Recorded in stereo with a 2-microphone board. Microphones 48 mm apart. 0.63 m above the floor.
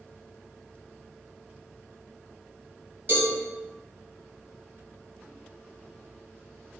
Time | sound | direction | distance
3.1 | a cowbell | 45° right (ahead or behind) | 1.1 m